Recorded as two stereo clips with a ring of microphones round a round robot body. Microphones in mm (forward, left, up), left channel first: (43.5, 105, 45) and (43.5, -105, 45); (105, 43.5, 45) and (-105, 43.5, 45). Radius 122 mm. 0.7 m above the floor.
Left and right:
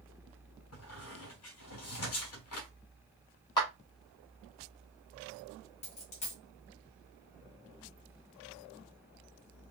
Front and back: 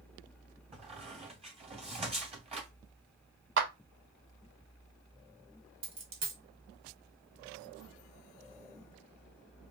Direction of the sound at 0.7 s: 115° left.